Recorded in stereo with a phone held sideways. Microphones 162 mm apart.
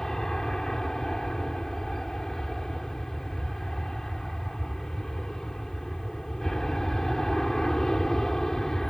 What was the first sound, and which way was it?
An aircraft, 5° left (ahead or behind).